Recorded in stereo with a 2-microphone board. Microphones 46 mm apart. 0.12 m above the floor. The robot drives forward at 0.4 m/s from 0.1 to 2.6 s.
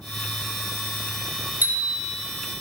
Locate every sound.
1.6 s a bicycle bell: 50° right (ahead or behind), 2 m; by 2.2 s 55° right (ahead or behind), 2 m